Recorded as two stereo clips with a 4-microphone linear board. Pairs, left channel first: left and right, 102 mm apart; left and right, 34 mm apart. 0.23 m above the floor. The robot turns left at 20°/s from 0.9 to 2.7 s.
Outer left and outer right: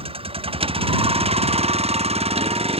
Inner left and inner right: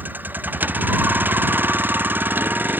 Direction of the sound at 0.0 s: 70° right.